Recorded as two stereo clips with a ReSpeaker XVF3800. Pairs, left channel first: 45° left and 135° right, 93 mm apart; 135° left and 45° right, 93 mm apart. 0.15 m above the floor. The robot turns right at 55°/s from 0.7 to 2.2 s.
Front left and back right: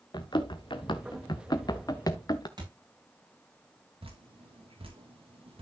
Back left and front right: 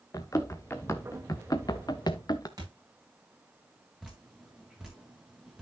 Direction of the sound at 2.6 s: 95° right.